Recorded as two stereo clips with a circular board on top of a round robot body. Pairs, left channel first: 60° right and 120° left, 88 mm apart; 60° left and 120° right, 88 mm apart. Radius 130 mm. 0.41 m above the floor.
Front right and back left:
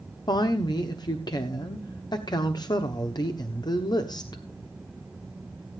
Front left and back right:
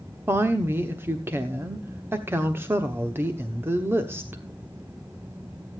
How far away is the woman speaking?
About 1.3 m.